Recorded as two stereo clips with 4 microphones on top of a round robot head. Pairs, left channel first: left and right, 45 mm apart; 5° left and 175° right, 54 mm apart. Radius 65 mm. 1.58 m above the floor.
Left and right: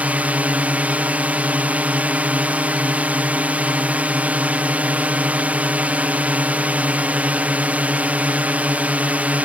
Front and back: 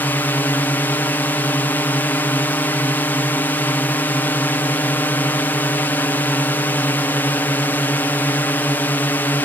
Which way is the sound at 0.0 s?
40° right.